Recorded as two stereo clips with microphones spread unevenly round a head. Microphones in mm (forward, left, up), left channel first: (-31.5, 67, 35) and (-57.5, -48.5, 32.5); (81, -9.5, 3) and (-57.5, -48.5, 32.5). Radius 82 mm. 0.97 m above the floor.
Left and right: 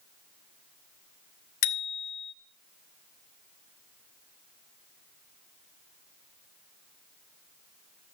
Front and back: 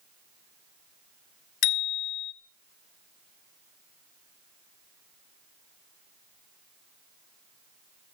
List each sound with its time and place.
1.6 s a bicycle bell: 55° left, 2.5 m